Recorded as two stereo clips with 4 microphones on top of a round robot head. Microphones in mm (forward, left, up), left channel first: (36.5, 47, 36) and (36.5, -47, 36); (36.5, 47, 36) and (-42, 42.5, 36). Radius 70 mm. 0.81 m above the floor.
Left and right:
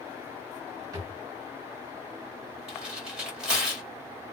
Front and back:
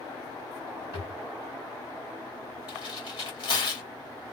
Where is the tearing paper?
5° right, 2 m.